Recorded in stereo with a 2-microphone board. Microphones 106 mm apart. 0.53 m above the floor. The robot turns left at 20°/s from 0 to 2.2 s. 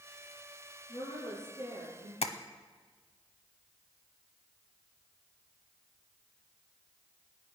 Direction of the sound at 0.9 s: 70° left (ahead or behind).